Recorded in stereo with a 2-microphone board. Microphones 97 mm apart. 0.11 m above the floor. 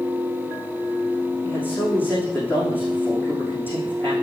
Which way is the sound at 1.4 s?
20° left (ahead or behind).